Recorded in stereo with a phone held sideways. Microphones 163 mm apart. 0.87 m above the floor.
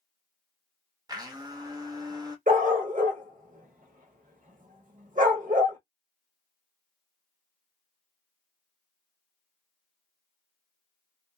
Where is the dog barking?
55° right (ahead or behind), 0.8 m.